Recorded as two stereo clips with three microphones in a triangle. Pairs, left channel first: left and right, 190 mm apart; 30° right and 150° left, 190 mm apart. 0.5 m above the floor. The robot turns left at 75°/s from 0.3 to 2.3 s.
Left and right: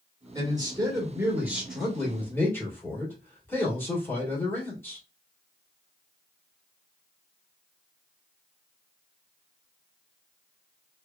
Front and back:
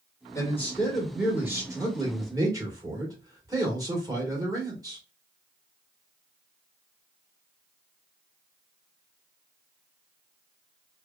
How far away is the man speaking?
About 1.3 m.